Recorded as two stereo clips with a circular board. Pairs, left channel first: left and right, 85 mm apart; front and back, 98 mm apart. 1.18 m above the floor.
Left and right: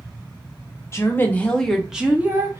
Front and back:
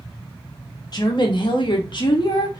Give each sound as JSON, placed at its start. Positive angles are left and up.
{"t": 0.9, "sound": "a woman speaking", "azimuth_deg": 35, "distance_m": 0.9}